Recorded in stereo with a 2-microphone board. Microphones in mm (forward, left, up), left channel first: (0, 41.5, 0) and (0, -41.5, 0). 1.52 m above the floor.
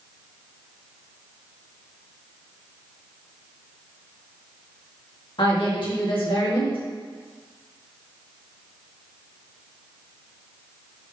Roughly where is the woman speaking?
Left.